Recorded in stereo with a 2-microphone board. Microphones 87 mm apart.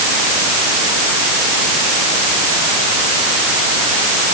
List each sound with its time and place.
Only background noise.